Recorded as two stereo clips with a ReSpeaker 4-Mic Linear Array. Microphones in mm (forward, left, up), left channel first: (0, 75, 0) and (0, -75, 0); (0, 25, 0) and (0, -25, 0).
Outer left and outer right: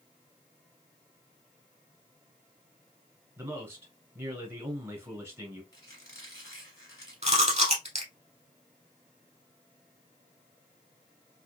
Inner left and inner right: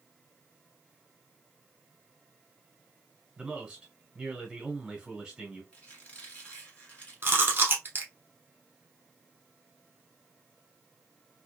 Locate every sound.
3.4 s a man speaking: 20° right (ahead or behind), 1.4 m
5.7 s a squeak: 25° left (ahead or behind), 1.5 m
7.2 s chewing: 45° right (ahead or behind), 1.2 m